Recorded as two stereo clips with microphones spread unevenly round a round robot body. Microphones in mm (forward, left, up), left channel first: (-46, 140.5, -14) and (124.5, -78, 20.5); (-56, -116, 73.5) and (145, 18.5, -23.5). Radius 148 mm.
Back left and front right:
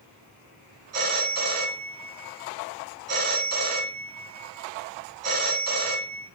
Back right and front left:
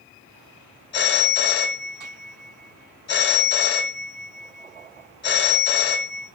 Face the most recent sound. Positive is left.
turn(degrees=-95)